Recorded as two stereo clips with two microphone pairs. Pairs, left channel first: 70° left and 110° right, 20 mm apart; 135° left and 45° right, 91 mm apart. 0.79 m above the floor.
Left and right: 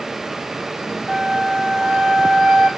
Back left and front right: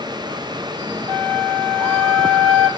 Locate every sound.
1.1 s a flute: 60° right, 0.8 m